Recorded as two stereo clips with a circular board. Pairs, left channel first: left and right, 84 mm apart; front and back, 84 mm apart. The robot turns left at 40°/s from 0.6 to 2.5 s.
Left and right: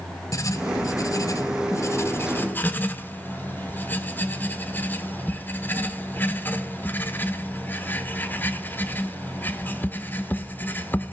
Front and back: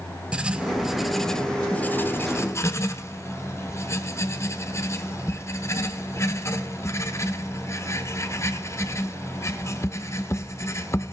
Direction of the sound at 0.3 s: 110° left.